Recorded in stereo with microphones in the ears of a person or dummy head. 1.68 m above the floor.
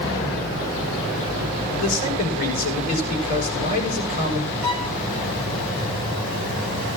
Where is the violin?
30° right (ahead or behind), 6.5 m.